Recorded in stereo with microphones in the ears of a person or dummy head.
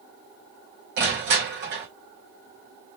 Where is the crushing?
50° right (ahead or behind), 3 m.